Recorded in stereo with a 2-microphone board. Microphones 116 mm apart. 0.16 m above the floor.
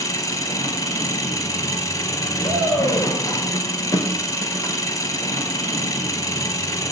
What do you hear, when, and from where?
0.0 s an engine running: 30° left (ahead or behind), 0.8 m
2.4 s a shout: 60° left (ahead or behind), 3 m